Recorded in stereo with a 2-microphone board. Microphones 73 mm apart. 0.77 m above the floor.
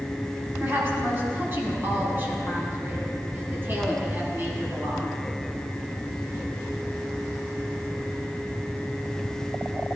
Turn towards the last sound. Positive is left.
turn(degrees=-30)  # may be behind; listen again after turning